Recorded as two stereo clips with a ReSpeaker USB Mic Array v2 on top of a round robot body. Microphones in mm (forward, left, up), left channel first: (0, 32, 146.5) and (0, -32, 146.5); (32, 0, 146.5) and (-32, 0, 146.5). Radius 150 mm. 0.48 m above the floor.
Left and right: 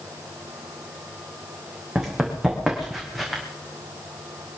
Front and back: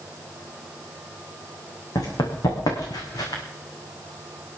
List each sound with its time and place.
1.9 s running footsteps: 10° right, 3.5 m; by 3.4 s 5° right, 3 m